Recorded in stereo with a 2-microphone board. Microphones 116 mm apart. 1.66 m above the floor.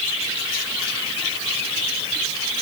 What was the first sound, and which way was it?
Only background noise.